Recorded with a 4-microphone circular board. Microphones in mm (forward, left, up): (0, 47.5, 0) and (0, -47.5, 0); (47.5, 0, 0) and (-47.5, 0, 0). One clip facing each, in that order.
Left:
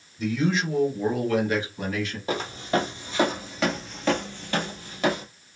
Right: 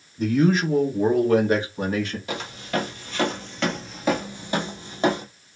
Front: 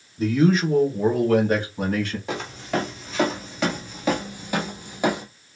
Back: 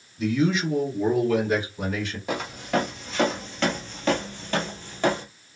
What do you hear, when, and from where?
0.2 s a man speaking: 45° right, 1.6 m; by 2.2 s 35° right, 2.5 m
2.3 s footsteps: 90° left, 1.5 m; by 5.2 s 65° right, 1.5 m